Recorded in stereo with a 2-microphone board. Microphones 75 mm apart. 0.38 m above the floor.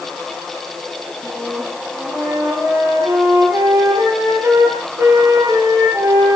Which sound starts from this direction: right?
A flute, at 1.2 s.